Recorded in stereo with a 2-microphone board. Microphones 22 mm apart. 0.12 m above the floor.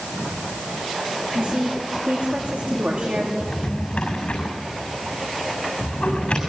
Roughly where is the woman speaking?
Right.